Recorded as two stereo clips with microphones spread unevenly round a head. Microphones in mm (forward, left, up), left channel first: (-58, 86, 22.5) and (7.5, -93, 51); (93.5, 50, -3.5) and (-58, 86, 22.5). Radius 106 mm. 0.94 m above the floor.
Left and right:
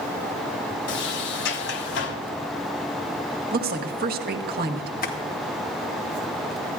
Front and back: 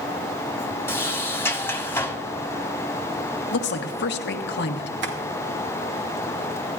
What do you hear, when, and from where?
0.9 s a sliding door: 65° left, 1.2 m
3.5 s a woman speaking: 20° right, 1.2 m
5.0 s tapping: 160° left, 2 m